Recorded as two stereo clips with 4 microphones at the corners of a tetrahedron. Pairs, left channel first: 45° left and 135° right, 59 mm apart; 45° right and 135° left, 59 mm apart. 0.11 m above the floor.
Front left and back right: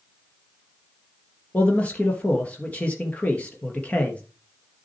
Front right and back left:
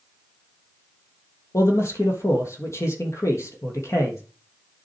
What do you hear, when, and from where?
1.5 s a man speaking: 20° right, 3 m